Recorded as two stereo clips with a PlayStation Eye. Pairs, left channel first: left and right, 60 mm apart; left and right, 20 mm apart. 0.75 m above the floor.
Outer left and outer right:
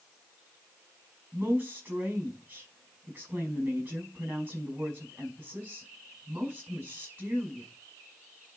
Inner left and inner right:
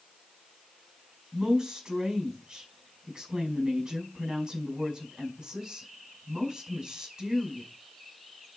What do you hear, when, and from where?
1.3 s a woman speaking: 45° right (ahead or behind), 4.5 m